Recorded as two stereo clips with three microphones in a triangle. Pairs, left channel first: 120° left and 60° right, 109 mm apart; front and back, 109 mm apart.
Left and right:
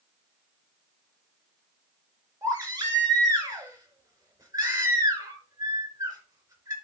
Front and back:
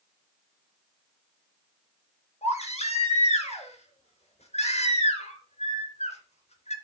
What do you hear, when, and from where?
2.4 s a baby crying: 5° right, 3 m